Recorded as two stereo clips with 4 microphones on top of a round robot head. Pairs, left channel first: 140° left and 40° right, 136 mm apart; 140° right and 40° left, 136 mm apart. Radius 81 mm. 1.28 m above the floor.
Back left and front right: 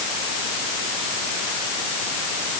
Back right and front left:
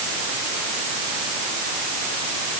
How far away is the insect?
No insect in this recording.